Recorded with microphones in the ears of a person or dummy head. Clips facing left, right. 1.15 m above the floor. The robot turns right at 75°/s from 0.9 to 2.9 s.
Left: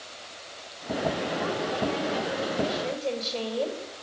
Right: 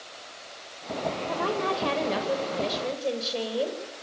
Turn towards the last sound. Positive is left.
turn(degrees=-15)